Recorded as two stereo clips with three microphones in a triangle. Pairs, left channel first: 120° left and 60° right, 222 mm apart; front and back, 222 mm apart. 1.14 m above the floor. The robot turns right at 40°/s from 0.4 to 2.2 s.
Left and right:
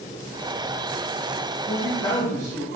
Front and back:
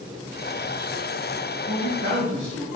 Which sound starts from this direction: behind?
A man speaking, at 1.7 s.